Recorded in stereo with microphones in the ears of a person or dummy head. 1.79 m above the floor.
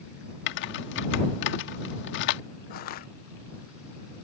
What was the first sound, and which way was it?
Typing on a keyboard, 75° left (ahead or behind).